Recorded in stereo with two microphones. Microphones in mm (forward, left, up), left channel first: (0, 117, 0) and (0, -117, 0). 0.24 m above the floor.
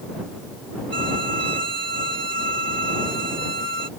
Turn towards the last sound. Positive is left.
turn(degrees=-50)  # may be behind; listen again after turning